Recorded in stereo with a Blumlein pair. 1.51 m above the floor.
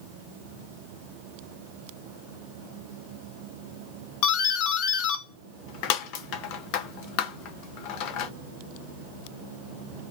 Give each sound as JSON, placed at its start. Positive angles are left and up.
{"t": 4.2, "sound": "a doorbell", "azimuth_deg": 40, "distance_m": 0.6}